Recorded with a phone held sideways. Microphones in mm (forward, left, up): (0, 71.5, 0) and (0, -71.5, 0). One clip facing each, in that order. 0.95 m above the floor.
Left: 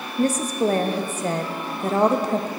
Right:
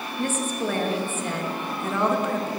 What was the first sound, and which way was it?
A woman speaking, 35° left (ahead or behind).